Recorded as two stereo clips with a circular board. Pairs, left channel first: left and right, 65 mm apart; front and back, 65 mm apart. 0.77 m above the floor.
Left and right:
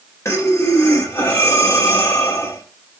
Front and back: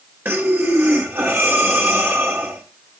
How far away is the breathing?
About 2 m.